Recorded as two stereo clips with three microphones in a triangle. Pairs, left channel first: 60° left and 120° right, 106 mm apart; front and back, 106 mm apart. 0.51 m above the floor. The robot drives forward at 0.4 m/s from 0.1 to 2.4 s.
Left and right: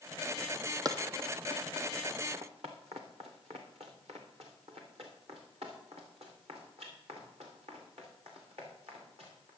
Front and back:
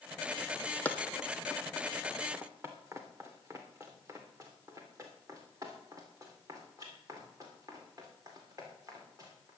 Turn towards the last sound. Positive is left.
turn(degrees=-125)